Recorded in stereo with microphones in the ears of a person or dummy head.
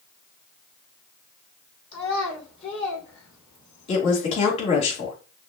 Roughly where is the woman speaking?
Left.